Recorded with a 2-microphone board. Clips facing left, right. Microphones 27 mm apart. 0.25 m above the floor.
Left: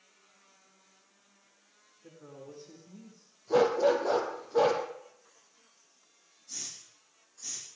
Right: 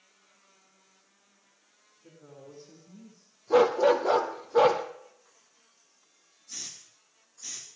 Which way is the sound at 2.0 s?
40° left (ahead or behind).